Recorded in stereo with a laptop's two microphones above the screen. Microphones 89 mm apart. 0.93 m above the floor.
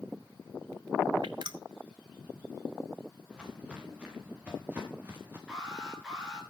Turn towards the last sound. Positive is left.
turn(degrees=-10)  # may be behind; listen again after turning